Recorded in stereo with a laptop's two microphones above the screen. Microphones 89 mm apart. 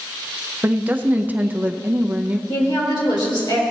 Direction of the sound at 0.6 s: 20° right (ahead or behind).